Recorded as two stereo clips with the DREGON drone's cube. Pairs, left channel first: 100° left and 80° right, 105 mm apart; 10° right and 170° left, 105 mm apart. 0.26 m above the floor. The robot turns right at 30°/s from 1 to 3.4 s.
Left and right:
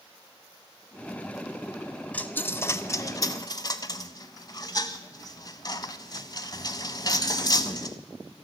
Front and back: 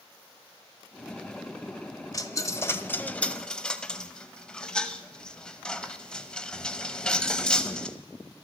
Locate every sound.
2.1 s a dropped coin: 30° left, 0.6 m; by 8.0 s 65° left, 0.6 m